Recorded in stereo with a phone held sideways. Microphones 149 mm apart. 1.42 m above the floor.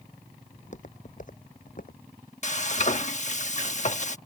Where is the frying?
55° left (ahead or behind).